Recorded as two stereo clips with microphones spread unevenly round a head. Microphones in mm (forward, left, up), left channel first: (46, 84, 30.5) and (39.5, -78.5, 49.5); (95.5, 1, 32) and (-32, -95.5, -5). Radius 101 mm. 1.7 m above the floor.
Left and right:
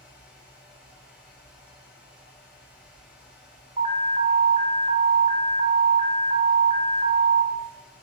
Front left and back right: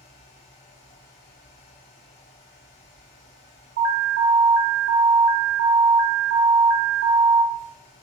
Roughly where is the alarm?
Behind.